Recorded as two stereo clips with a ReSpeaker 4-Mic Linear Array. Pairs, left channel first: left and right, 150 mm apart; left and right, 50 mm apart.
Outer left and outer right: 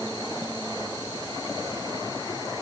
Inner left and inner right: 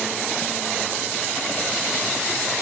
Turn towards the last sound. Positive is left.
No sound to turn to.